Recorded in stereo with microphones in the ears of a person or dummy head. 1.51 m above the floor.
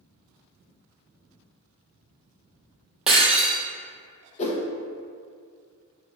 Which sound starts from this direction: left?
A whoosh, at 4.4 s.